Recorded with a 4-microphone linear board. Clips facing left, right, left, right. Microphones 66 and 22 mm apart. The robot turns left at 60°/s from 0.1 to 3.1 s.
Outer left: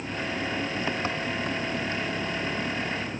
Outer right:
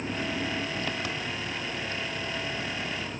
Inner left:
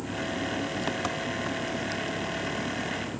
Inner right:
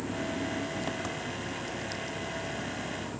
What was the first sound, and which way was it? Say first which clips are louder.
An engine running: even, inner left 2 dB; 155° right.